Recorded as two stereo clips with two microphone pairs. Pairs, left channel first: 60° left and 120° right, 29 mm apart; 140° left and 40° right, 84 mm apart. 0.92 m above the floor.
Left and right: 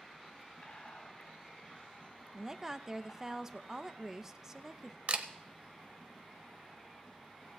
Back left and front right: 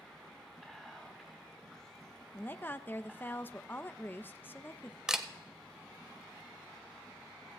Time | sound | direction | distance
0.6 | whispering | 45° left | 2.5 m
2.3 | a woman speaking | 175° left | 0.6 m
5.1 | a camera shutter | 120° right | 0.8 m